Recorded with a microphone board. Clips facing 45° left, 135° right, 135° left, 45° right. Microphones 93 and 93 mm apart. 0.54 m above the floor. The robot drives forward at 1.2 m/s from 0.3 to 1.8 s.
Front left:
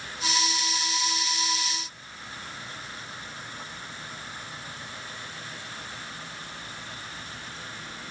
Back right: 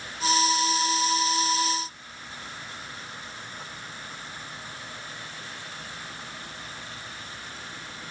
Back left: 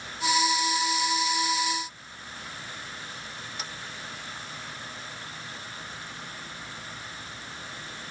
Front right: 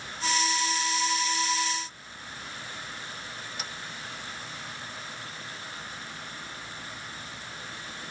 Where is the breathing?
I don't hear breathing.